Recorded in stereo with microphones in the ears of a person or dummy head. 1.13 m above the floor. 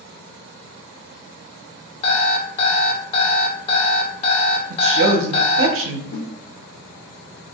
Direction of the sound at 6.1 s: 60° left (ahead or behind).